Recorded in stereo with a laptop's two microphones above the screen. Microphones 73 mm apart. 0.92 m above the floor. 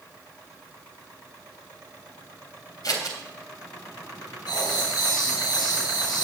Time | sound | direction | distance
2.8 | scissors | 60° left (ahead or behind) | 3.5 m
4.5 | writing | 70° left (ahead or behind) | 4.5 m